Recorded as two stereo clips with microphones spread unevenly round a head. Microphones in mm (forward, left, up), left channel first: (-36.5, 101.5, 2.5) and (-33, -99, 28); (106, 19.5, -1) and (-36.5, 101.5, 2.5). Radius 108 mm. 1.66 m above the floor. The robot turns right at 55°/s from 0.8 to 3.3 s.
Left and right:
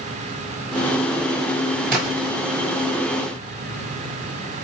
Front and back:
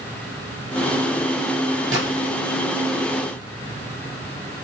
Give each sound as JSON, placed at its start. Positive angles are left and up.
{"t": 1.9, "sound": "a splash", "azimuth_deg": -140, "distance_m": 5.5}